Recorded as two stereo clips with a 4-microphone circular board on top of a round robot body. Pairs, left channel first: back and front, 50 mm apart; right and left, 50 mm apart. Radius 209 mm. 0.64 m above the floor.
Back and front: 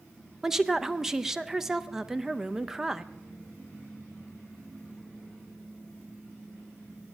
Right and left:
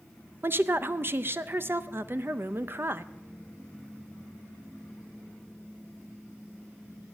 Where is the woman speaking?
80° left, 0.8 m.